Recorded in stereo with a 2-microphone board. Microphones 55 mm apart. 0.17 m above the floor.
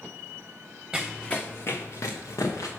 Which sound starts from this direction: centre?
Running footsteps, at 0.9 s.